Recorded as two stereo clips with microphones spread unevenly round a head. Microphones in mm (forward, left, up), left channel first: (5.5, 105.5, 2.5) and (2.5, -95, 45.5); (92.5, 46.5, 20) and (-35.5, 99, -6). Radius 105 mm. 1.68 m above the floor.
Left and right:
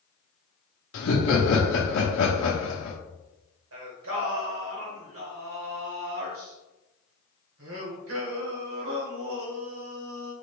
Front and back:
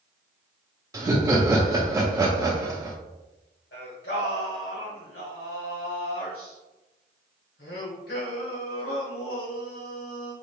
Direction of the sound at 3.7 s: 65° right.